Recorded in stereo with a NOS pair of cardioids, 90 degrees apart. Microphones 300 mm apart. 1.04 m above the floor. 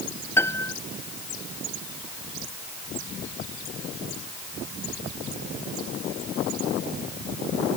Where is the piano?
10° left.